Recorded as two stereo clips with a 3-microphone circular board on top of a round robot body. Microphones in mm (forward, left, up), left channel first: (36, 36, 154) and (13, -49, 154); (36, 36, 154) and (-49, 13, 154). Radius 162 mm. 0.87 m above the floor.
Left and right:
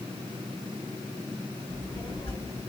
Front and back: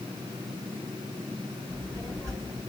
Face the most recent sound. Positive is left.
turn(degrees=140)